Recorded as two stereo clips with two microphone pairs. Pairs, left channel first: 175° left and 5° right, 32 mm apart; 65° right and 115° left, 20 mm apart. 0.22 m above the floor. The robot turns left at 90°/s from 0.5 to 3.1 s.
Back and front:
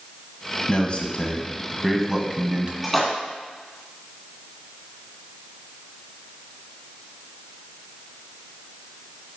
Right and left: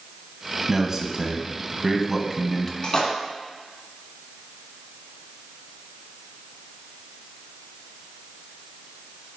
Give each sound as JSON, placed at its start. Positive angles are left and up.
{"t": 0.7, "sound": "a man speaking", "azimuth_deg": 180, "distance_m": 1.4}
{"t": 2.8, "sound": "a splash", "azimuth_deg": -90, "distance_m": 2.0}